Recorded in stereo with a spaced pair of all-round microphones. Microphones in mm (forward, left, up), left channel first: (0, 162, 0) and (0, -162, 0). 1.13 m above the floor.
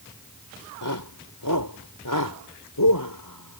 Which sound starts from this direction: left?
A shout, at 0.8 s.